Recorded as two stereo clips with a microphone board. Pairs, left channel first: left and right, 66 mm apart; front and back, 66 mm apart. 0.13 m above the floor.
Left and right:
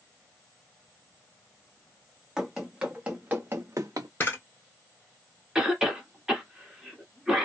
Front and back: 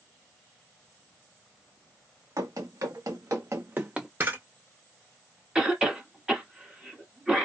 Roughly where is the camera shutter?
Behind left.